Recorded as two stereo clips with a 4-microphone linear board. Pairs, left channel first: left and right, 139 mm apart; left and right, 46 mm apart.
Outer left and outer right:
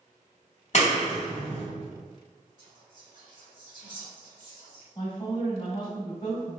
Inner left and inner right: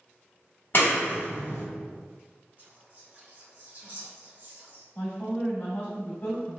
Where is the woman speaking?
35° left (ahead or behind), 1.7 m.